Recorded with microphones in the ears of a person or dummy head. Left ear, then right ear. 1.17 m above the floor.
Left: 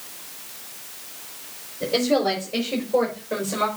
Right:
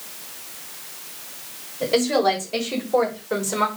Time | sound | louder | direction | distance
1.8 | a woman speaking | right 2 dB | 55° right (ahead or behind) | 6 m